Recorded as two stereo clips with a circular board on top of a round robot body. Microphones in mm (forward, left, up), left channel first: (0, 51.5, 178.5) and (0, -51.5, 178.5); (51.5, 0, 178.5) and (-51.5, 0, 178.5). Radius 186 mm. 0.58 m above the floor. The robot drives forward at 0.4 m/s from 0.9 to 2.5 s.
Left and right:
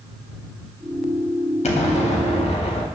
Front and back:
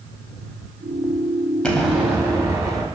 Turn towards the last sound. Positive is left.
turn(degrees=120)